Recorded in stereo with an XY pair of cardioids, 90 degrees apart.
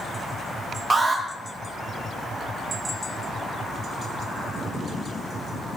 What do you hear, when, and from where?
0.9 s an alarm: 40° right, 1.5 m